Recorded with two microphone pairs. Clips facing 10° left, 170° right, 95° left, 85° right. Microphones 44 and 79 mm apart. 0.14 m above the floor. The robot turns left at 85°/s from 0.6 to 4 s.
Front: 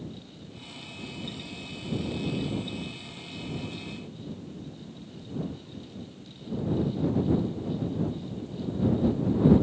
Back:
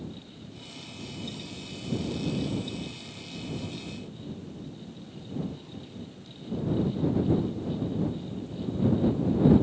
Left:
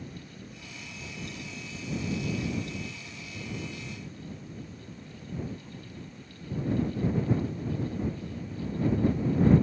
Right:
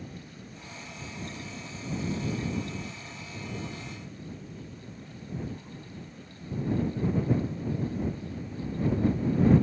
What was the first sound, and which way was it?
Only background noise.